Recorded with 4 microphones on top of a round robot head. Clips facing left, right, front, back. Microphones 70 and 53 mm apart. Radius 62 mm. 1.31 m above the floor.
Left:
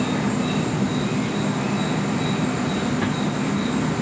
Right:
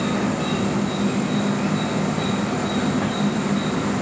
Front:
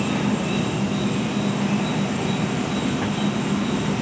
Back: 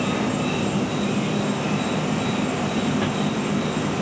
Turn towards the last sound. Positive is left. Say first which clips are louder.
# even, even
turn(degrees=-125)